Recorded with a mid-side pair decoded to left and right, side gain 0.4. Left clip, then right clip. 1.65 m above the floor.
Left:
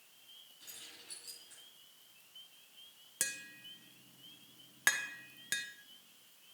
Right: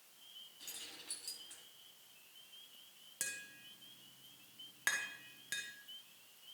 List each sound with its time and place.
0.6 s keys jangling: 45° right, 8 m
3.2 s tapping: 50° left, 1.5 m